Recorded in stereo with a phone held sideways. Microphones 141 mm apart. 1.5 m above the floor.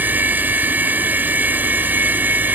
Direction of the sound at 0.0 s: 10° right (ahead or behind).